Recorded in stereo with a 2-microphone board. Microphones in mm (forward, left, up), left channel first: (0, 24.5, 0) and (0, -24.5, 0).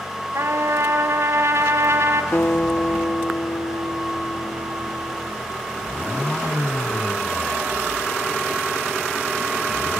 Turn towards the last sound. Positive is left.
turn(degrees=40)  # may be behind; listen again after turning